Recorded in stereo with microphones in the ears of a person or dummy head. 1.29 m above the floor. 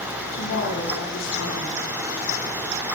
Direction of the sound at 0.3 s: 70° left (ahead or behind).